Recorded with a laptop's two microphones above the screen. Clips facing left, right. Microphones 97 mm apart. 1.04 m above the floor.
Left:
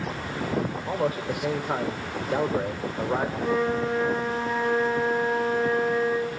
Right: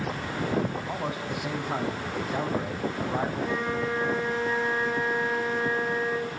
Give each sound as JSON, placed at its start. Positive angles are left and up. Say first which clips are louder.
{"t": 0.8, "sound": "a man speaking", "louder": "left 5 dB", "side_deg": 75, "distance_m": 3.5}
{"t": 3.4, "sound": "a flute", "louder": "left 4 dB", "side_deg": 80, "distance_m": 5.5}